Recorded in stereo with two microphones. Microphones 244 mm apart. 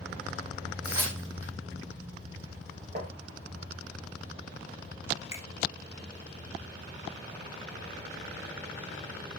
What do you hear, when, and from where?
0.8 s tearing paper: 65° right (ahead or behind), 4 m
3.0 s tapping: 35° right (ahead or behind), 2 m
5.3 s a finger snap: 10° right (ahead or behind), 1.7 m